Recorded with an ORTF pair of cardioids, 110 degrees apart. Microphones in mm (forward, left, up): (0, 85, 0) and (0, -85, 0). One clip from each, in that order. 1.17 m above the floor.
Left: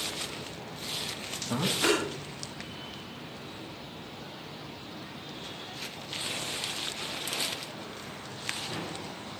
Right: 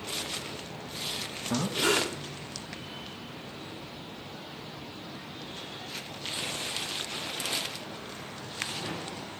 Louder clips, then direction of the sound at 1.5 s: Even; 5° right.